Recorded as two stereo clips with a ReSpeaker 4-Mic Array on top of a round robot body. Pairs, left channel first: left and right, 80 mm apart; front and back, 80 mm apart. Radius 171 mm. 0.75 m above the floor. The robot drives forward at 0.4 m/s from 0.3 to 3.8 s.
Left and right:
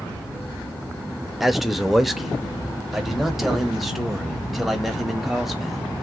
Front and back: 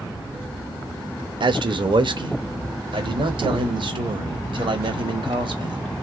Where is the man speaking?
Straight behind, 1.1 m.